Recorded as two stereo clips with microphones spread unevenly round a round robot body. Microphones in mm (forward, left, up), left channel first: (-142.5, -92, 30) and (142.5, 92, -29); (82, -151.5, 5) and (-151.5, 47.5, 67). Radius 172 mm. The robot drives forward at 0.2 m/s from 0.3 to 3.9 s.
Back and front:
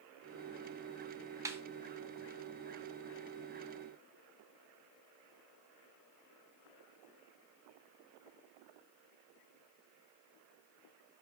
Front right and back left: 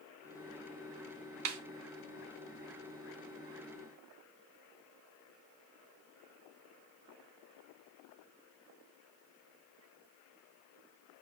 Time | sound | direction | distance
1.4 | a snare drum | 105° left | 0.5 m